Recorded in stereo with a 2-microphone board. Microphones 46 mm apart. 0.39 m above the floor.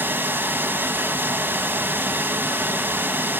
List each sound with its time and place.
0.0 s running water: 50° right (ahead or behind), 1.7 m